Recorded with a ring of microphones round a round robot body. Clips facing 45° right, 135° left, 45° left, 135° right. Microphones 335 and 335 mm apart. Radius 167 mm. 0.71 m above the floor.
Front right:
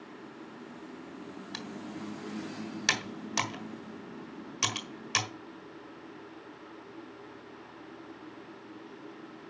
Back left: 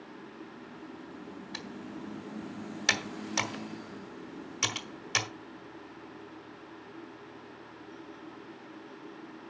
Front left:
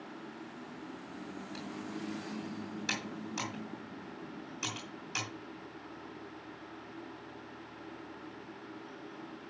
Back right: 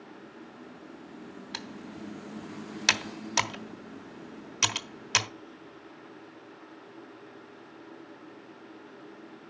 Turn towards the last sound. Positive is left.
turn(degrees=-130)